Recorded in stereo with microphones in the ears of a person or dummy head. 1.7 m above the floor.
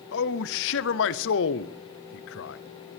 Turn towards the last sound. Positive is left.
turn(degrees=65)  # may be behind; listen again after turning